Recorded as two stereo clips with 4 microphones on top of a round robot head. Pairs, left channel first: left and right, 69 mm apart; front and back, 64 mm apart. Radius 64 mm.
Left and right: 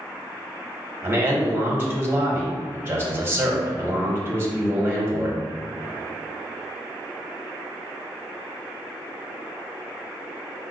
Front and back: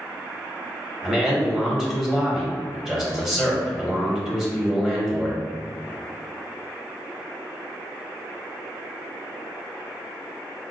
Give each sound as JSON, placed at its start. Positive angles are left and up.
{"t": 1.0, "sound": "a man speaking", "azimuth_deg": -100, "distance_m": 0.9}